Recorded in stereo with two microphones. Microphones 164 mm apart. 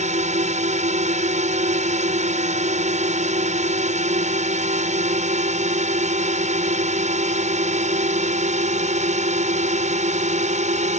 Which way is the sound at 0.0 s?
45° right (ahead or behind).